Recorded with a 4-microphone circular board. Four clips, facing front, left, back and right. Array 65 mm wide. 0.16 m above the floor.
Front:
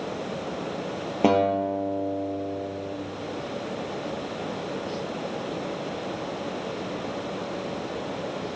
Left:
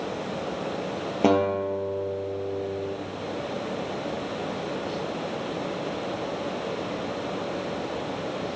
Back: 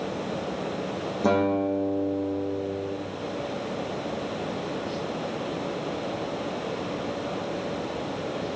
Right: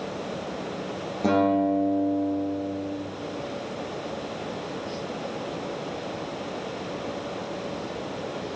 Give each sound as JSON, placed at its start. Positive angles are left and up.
{"t": 1.2, "sound": "a guitar", "azimuth_deg": 35, "distance_m": 4.5}